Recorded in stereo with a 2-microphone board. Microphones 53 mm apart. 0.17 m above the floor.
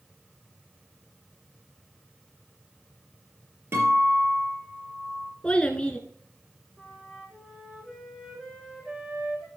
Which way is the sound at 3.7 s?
50° right (ahead or behind).